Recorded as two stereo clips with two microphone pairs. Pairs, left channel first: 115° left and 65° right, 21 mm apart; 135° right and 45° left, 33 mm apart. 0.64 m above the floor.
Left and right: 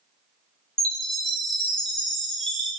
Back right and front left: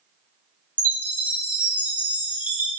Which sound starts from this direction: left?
A chime, at 0.8 s.